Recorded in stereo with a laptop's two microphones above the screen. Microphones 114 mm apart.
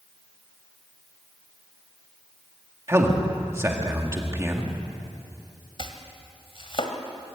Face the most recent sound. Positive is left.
turn(degrees=50)  # may be behind; listen again after turning